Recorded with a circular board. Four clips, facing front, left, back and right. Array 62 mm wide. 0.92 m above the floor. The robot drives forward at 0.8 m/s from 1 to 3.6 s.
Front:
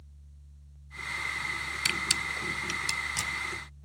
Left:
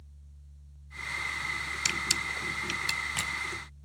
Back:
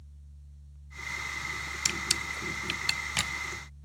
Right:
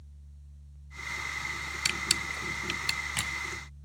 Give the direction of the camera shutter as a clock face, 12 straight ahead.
1 o'clock.